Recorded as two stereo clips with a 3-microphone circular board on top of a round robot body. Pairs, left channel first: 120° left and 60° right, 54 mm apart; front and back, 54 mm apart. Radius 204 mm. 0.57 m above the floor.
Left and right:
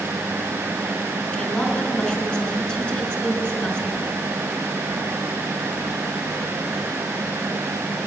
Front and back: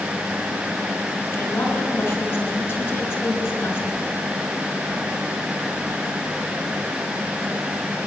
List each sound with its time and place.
1.3 s a woman speaking: 55° left, 6 m